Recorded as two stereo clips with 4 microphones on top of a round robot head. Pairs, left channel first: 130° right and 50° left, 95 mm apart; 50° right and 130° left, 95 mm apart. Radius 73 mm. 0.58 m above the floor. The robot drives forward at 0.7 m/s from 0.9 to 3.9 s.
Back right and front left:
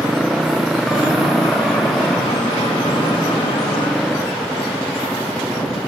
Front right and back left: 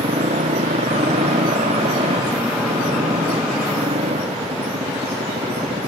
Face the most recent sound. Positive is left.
turn(degrees=145)